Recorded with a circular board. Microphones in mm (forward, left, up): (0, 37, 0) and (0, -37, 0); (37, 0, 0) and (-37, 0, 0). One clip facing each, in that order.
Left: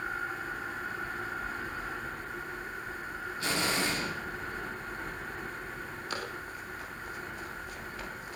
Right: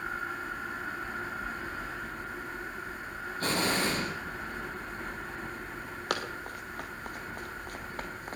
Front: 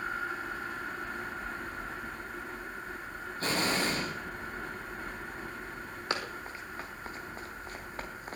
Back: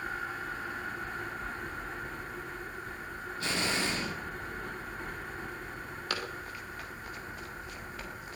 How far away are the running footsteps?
About 3.5 m.